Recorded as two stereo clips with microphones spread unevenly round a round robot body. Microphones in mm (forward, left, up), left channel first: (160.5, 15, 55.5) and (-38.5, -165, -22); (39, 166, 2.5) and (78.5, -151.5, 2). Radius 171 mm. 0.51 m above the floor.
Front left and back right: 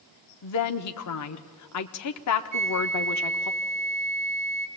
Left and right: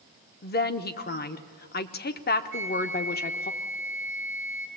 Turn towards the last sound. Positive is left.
turn(degrees=-140)